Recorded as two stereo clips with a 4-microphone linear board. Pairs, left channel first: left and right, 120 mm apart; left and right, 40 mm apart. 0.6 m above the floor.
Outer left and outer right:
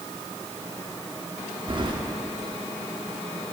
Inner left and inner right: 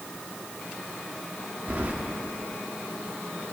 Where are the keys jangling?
40° right (ahead or behind), 0.7 m.